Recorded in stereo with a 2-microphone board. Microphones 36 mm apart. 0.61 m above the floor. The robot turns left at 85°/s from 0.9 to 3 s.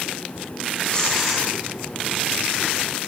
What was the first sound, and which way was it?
Tearing paper, 30° left.